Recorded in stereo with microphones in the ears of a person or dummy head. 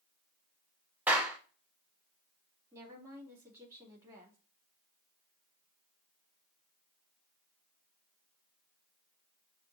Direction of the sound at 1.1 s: 15° right (ahead or behind).